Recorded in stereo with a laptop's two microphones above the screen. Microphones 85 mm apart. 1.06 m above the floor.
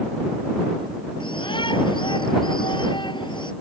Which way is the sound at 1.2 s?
75° left (ahead or behind).